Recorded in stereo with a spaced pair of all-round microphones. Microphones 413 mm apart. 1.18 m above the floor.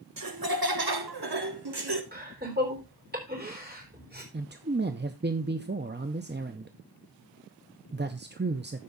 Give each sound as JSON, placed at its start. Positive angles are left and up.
{"t": 0.2, "sound": "laughter", "side_deg": -50, "distance_m": 0.8}
{"t": 2.1, "sound": "laughter", "side_deg": -20, "distance_m": 4.0}
{"t": 4.3, "sound": "a man speaking", "side_deg": -25, "distance_m": 0.6}